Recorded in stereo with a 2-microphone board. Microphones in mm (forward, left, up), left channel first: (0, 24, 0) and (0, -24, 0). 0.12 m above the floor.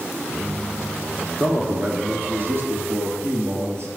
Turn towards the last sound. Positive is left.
turn(degrees=-60)  # may be behind; listen again after turning